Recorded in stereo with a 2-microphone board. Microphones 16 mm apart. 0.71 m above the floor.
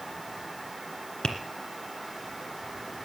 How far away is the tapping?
About 2 m.